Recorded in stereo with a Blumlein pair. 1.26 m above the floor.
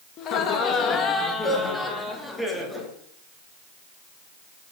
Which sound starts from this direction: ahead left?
Laughter, at 0.2 s.